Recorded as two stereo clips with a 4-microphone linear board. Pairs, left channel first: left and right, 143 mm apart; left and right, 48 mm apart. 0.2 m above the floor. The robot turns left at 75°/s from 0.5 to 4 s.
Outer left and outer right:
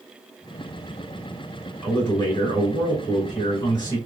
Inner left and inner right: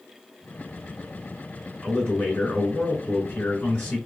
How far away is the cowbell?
No cowbell in this recording.